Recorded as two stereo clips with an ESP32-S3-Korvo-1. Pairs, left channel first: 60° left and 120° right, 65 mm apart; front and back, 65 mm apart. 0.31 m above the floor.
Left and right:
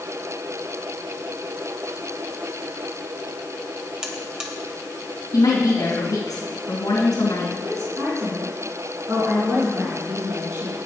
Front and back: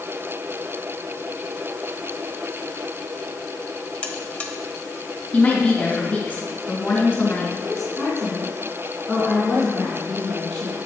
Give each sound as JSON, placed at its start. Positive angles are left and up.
{"t": 4.0, "sound": "a buzzer", "azimuth_deg": -45, "distance_m": 1.0}
{"t": 5.3, "sound": "a woman speaking", "azimuth_deg": 65, "distance_m": 2.5}
{"t": 7.6, "sound": "a woman speaking", "azimuth_deg": -85, "distance_m": 3.5}